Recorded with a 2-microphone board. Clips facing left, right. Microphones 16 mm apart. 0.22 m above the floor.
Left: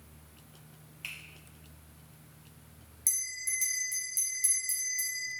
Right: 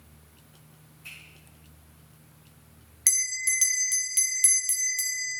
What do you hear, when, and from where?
1.0 s a finger snap: 65° left (ahead or behind), 3.5 m
3.1 s a bell: 55° right (ahead or behind), 0.7 m